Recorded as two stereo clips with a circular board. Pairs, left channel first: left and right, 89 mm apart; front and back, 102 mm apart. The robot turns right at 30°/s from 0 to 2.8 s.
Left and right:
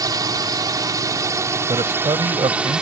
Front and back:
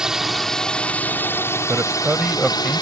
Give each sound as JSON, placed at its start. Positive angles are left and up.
{"t": 0.0, "sound": "a drone", "azimuth_deg": -100}
{"t": 1.7, "sound": "a man speaking", "azimuth_deg": -120}